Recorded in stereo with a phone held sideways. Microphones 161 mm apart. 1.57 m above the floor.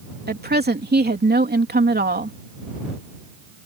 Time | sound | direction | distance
0.3 | a woman speaking | 90° right | ?